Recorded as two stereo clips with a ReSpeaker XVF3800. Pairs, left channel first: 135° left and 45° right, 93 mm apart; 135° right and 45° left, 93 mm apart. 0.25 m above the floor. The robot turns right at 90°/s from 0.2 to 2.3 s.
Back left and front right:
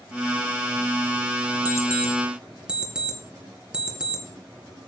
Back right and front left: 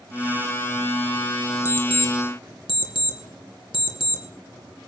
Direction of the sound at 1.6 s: Straight behind.